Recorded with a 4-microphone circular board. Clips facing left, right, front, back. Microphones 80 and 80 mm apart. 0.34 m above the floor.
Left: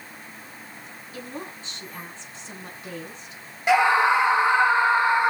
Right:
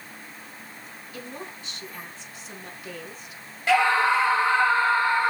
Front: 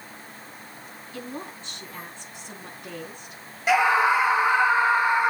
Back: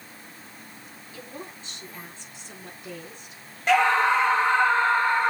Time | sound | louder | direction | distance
1.1 | a woman speaking | left 2 dB, front 4 dB | 30° left | 4.5 m
3.7 | a scream | left 2 dB, even | 60° left | 0.8 m